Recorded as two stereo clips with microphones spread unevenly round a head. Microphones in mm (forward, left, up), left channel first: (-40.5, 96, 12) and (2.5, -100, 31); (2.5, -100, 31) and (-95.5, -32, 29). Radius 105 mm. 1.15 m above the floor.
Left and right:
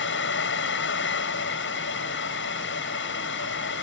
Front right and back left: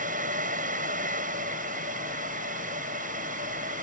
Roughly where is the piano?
I don't hear a piano.